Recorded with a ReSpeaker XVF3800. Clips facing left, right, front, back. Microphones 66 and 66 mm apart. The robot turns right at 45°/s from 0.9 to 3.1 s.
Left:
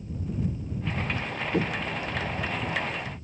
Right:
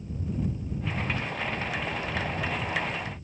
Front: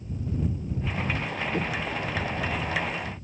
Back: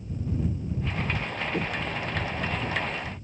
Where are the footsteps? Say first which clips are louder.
Left 3 dB, even; 90° left; by 2.8 s 145° left.